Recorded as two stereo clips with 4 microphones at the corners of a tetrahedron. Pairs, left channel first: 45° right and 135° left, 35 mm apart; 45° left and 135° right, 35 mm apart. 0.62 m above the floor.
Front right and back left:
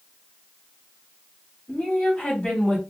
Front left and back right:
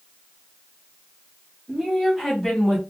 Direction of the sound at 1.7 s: 70° right.